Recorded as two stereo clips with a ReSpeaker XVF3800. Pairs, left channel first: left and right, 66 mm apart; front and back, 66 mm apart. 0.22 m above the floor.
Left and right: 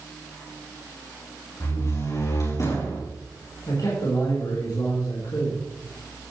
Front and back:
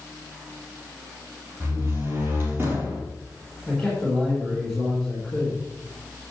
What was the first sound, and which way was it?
A door slam, 125° left.